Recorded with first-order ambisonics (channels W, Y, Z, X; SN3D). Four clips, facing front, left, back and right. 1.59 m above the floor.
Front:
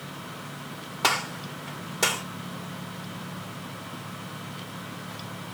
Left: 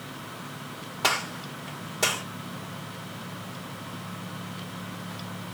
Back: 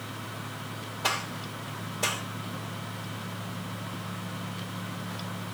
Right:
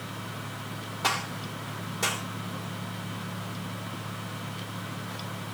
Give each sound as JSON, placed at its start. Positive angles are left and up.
{"t": 1.0, "sound": "a gunshot", "azimuth_deg": 20, "distance_m": 1.8}